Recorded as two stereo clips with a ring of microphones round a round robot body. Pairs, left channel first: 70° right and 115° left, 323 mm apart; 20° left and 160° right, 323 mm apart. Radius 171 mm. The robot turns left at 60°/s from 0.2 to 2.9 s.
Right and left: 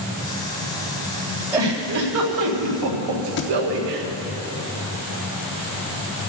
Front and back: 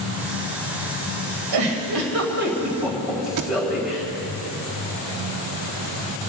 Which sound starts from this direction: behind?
A giggle, at 1.5 s.